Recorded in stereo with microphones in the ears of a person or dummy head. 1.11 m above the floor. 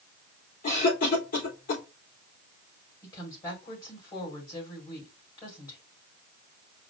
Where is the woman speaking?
30° left (ahead or behind), 4 m.